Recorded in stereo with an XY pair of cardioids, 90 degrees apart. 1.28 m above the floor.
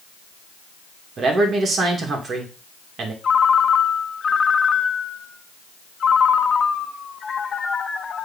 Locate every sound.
1.2 s a man speaking: 60° right, 2 m
3.2 s a ringtone: 50° left, 0.8 m